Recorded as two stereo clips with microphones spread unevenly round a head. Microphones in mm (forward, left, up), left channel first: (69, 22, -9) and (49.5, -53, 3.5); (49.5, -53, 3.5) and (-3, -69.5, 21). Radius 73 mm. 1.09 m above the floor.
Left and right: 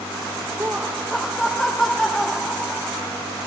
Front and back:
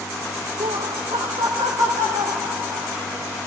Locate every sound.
0.6 s laughter: 175° right, 0.6 m; by 3.0 s 155° left, 4 m